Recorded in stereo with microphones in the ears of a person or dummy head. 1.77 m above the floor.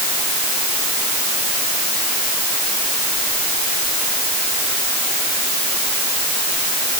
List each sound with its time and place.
Only background noise.